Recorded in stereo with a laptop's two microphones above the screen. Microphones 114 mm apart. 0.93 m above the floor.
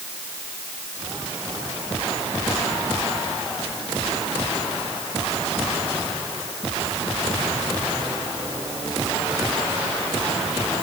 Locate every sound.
Only background noise.